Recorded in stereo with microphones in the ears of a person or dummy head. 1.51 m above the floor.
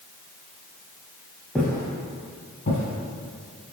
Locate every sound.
1.6 s footsteps: 5° left (ahead or behind), 1.8 m; by 3.8 s 65° left (ahead or behind), 3.5 m